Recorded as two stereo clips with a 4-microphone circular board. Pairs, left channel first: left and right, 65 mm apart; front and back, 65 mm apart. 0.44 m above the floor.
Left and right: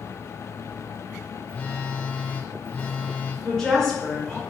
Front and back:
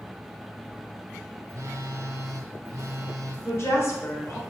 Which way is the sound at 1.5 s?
155° left.